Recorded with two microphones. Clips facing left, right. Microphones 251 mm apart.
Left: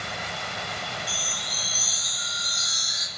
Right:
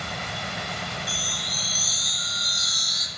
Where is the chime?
40° right (ahead or behind), 1.6 m.